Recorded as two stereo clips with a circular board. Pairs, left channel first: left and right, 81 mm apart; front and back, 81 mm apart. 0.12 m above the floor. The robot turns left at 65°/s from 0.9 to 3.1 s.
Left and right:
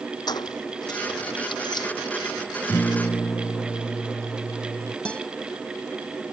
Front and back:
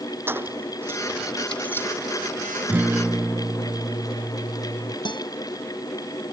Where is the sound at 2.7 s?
140° left; by 5.0 s 115° left.